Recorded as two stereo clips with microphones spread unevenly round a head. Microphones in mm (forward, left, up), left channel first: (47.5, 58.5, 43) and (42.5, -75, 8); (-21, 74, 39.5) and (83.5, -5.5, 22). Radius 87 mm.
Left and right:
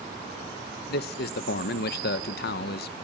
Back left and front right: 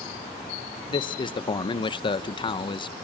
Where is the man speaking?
85° left, 0.9 m.